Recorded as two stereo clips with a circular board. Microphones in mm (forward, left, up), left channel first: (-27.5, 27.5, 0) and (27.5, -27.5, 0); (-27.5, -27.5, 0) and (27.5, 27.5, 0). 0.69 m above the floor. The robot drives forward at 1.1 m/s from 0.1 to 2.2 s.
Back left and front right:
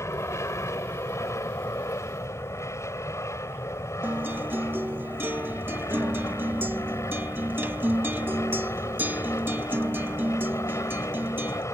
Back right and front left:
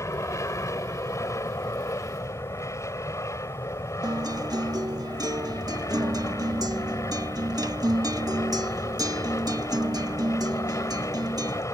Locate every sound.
0.0 s an aircraft: straight behind
4.0 s a guitar: 15° left